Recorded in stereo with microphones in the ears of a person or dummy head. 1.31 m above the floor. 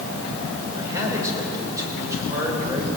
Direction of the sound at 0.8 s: 15° right (ahead or behind).